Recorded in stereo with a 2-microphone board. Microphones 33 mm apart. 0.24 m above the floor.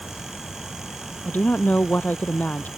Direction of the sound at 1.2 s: 65° left (ahead or behind).